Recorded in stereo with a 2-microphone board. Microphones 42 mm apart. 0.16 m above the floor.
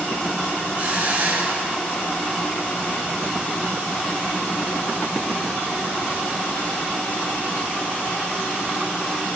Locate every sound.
0.8 s a hiss: 50° right (ahead or behind), 2.5 m